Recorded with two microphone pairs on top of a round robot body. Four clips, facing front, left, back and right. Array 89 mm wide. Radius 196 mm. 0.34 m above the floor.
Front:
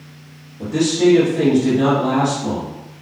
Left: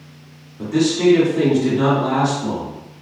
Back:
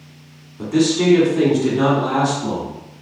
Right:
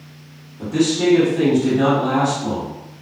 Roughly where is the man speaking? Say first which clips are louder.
Left 1 dB, front 1 dB; behind.